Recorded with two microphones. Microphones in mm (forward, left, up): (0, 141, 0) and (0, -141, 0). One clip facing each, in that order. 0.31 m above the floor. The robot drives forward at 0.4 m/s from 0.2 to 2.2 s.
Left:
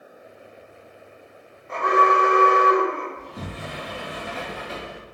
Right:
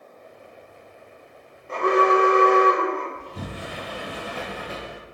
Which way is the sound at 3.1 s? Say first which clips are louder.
Even; 50° right (ahead or behind).